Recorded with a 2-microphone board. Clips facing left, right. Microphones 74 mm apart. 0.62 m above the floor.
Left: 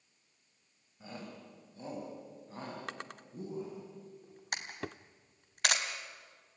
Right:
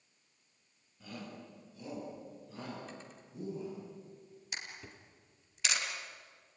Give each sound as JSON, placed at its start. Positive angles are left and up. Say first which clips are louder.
{"t": 1.0, "sound": "a shout", "louder": "even", "side_deg": 25, "distance_m": 4.5}
{"t": 2.9, "sound": "a drawer", "louder": "left 5 dB", "side_deg": 75, "distance_m": 0.6}
{"t": 4.5, "sound": "a camera shutter", "louder": "left 6 dB", "side_deg": 55, "distance_m": 2.5}